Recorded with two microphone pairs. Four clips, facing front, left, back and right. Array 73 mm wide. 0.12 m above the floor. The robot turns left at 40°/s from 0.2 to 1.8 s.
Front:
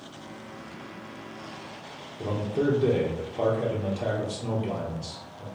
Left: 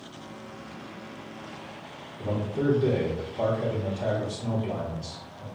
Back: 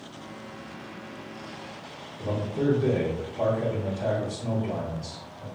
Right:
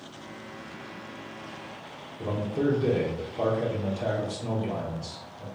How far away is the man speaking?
About 2.5 m.